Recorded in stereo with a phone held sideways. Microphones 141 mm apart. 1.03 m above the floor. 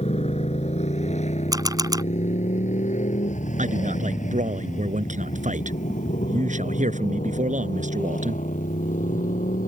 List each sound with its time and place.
0.0 s a motorcycle: 50° left (ahead or behind); by 9.7 s 70° left (ahead or behind)
1.5 s a camera shutter: 25° right (ahead or behind)
3.6 s a man speaking: 60° right (ahead or behind)